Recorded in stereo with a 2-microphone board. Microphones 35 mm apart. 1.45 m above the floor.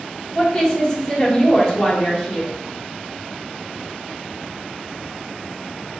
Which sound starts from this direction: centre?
A woman speaking, at 0.3 s.